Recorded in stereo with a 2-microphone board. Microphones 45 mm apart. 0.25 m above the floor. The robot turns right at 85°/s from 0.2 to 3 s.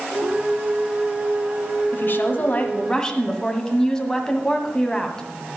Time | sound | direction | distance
1.9 | a woman speaking | 70° left | 1.4 m